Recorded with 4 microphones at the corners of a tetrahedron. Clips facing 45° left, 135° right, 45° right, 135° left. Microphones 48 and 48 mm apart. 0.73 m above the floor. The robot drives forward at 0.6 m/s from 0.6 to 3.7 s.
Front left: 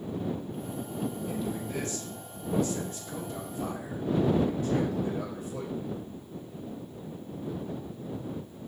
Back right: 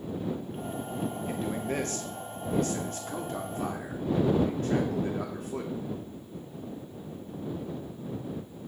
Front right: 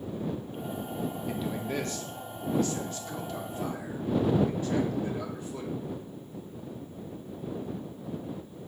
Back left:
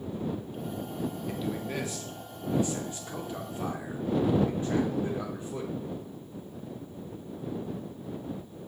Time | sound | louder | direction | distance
1.3 | a man speaking | back right 2 dB, front right 1 dB | 125° right | 1.1 m